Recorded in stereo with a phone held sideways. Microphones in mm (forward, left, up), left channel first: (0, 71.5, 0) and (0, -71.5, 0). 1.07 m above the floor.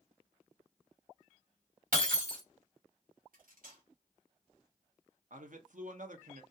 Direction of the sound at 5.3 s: 65° right (ahead or behind).